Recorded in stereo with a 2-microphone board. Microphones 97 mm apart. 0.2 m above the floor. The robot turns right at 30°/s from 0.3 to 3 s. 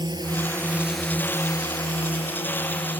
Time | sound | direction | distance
0.0 | a drone | 50° right (ahead or behind) | ?